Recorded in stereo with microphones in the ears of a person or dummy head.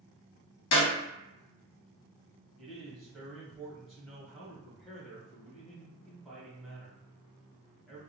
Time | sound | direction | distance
0.7 | a clap | 65° left (ahead or behind) | 1.3 m
2.6 | a man speaking | centre (ahead or behind) | 1.0 m